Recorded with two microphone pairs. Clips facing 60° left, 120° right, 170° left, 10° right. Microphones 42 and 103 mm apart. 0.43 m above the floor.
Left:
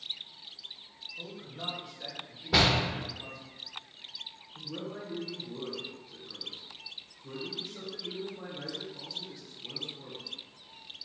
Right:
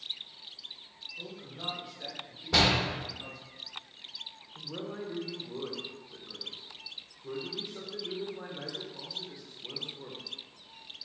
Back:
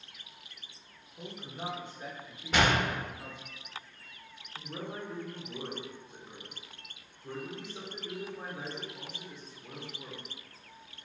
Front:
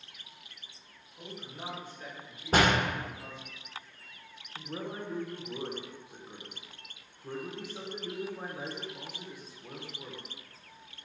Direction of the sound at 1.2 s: 160° left.